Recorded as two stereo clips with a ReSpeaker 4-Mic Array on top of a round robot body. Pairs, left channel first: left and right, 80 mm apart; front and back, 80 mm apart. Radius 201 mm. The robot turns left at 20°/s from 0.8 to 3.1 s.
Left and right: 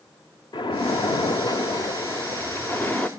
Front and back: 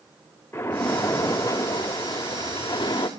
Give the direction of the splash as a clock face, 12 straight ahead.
10 o'clock.